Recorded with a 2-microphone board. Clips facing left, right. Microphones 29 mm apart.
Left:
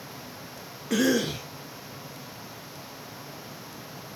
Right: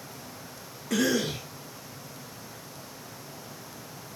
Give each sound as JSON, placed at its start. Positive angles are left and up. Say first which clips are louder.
{"t": 0.9, "sound": "a cough", "louder": "left 2 dB", "side_deg": 15, "distance_m": 0.7}